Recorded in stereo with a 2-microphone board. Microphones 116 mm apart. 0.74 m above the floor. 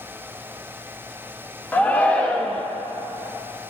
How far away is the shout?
About 0.6 m.